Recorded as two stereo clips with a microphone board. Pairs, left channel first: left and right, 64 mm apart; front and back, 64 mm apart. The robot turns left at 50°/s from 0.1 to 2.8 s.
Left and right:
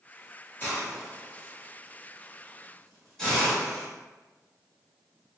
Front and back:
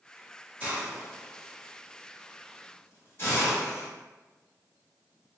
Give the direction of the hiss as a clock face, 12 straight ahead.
8 o'clock.